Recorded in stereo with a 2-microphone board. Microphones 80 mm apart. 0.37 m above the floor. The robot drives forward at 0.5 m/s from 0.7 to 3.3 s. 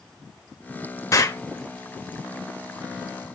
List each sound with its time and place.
1.1 s an explosion: 35° left (ahead or behind), 1.2 m